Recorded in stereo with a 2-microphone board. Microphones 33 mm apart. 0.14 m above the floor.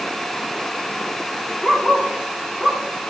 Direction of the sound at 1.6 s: 15° left (ahead or behind).